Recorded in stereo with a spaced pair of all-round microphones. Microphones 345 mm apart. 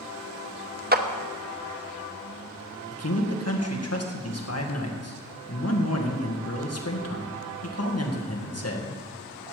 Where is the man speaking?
45° left (ahead or behind), 2 m.